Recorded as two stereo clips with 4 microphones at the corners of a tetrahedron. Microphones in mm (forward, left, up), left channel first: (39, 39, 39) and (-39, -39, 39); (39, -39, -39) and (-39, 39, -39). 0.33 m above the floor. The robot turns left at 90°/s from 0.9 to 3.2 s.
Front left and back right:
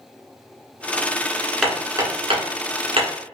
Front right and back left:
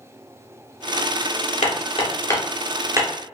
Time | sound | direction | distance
1.6 | hammering | 45° right | 1.6 m